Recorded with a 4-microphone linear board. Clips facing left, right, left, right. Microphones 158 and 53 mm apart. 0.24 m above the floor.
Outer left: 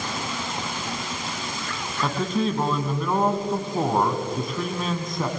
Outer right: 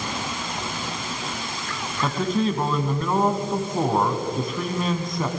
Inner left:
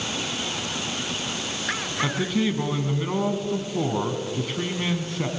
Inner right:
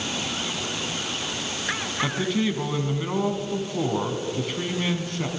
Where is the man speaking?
Centre (ahead or behind), 1.7 m.